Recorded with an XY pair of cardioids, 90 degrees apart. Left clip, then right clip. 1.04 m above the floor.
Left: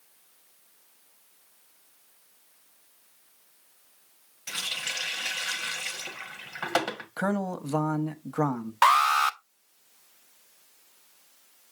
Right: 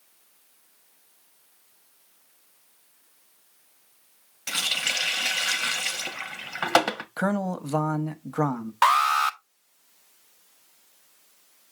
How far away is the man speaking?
About 1.1 m.